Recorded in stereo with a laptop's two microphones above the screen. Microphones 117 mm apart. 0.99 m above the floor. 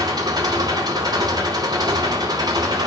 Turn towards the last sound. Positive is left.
turn(degrees=-40)  # may be behind; listen again after turning